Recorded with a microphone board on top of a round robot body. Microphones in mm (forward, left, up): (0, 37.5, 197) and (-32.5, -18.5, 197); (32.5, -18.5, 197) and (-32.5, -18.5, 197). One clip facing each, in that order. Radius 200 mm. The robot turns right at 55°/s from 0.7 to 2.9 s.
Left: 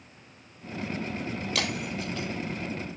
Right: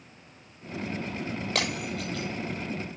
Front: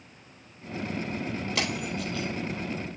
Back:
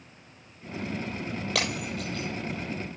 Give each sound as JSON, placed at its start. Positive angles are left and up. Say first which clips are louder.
{"t": 1.6, "sound": "breaking glass", "louder": "right 1 dB, back 1 dB", "azimuth_deg": -165, "distance_m": 6.5}